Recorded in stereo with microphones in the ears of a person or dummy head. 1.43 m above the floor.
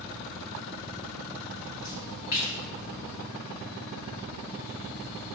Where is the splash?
20° right (ahead or behind), 4.5 m.